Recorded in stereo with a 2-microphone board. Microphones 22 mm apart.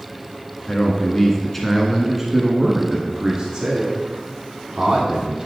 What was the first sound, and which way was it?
A man speaking, 30° left (ahead or behind).